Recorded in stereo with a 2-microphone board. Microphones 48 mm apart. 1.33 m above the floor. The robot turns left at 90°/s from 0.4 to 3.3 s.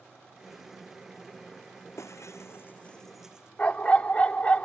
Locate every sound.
2.0 s breaking glass: 110° left; by 3.5 s 10° right
3.6 s a dog barking: 30° left (ahead or behind)